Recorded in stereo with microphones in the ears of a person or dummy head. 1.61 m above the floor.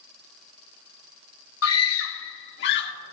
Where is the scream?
80° left, 1.1 m; by 2.9 s 60° left (ahead or behind), 1.6 m.